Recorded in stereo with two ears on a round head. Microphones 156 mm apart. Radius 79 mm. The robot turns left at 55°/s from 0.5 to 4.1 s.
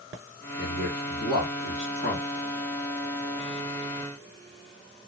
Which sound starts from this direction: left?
A man speaking, at 0.6 s.